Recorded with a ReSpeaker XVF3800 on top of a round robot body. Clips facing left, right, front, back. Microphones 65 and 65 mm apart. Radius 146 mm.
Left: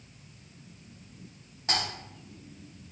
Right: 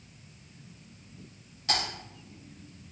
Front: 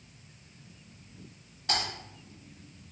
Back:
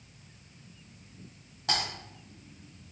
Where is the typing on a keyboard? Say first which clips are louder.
Even, even; 160° left, 0.9 m.